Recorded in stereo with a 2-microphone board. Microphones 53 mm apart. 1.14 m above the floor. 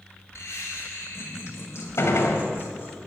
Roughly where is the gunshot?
Left.